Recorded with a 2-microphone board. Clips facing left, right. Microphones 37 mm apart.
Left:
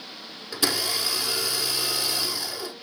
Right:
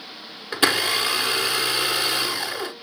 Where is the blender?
45° right (ahead or behind), 1.4 m.